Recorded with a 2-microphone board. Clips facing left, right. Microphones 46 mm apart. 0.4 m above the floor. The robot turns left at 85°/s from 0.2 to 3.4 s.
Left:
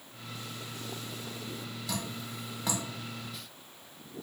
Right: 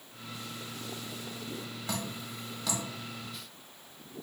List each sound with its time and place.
1.9 s dripping: 35° right (ahead or behind), 1.4 m; by 2.8 s 40° left (ahead or behind), 1.4 m